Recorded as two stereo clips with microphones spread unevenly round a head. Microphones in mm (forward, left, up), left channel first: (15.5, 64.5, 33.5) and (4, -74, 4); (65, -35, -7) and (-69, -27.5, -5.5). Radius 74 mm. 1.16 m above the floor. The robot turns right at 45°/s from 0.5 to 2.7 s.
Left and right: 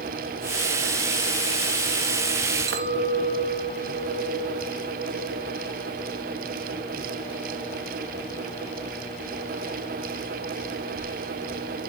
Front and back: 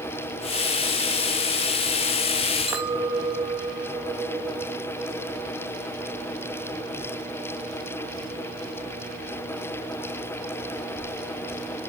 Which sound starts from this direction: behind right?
A clink, at 2.7 s.